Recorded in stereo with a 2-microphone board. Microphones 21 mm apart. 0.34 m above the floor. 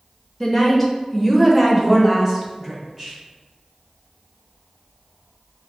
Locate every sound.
0.4 s a woman speaking: 10° left (ahead or behind), 0.9 m; by 3.1 s 15° right (ahead or behind), 1.9 m